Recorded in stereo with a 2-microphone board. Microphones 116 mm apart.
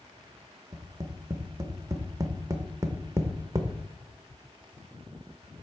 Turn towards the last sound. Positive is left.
turn(degrees=-25)  # may be behind; listen again after turning